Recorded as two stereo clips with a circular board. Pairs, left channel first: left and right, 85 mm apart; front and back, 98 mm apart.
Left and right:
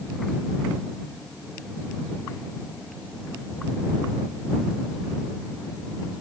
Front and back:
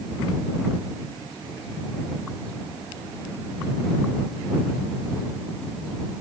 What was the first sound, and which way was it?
Only background noise.